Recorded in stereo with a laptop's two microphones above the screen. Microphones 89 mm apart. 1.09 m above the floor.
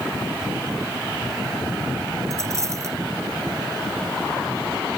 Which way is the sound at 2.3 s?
35° right (ahead or behind).